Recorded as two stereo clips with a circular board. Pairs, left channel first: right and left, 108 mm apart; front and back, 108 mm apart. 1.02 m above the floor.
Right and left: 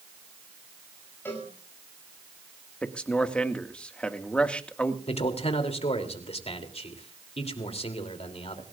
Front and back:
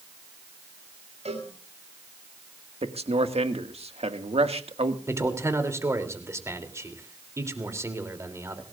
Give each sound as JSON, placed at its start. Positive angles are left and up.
{"t": 1.2, "sound": "a cowbell", "azimuth_deg": -160, "distance_m": 7.5}
{"t": 2.8, "sound": "a man speaking", "azimuth_deg": -170, "distance_m": 1.8}
{"t": 5.1, "sound": "a man speaking", "azimuth_deg": -115, "distance_m": 3.0}